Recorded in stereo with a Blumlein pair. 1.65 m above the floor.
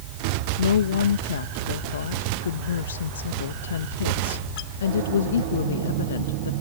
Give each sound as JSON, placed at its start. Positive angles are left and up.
{"t": 0.6, "sound": "a woman speaking", "azimuth_deg": 65}